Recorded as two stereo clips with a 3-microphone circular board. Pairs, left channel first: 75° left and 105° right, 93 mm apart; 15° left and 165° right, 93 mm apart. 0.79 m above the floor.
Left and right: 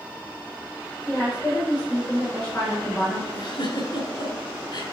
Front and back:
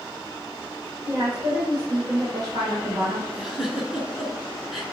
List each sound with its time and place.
1.1 s a woman speaking: 150° left, 3.5 m
3.3 s a giggle: 110° left, 2.5 m